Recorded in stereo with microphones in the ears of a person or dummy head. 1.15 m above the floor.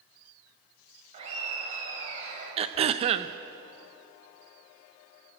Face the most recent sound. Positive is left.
turn(degrees=-35)  # may be behind; listen again after turning